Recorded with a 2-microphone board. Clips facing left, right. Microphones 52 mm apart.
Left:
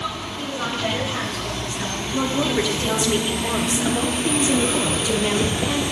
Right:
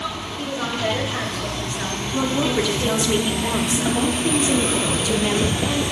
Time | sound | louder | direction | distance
0.4 | a woman speaking | right 1 dB | 20° right (ahead or behind) | 3 m
2.1 | a woman speaking | right 1 dB | centre (ahead or behind) | 0.8 m